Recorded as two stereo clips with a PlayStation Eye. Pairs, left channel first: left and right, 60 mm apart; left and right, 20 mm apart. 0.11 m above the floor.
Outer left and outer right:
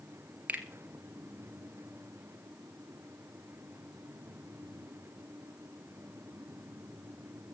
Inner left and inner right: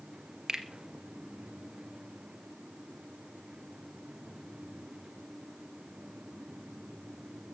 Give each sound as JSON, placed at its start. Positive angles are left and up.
{"t": 0.5, "sound": "a finger snap", "side_deg": -25, "distance_m": 1.9}